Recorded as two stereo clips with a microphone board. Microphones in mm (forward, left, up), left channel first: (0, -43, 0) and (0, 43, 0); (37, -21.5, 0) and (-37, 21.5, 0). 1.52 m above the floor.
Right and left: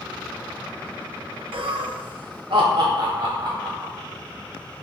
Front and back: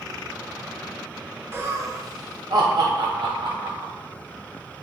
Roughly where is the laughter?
Left.